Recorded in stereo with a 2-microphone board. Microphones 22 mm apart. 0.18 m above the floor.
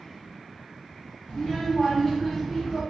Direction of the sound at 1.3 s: 45° left (ahead or behind).